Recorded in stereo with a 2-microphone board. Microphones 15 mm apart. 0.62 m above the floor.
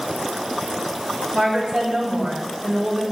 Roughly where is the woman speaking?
Right.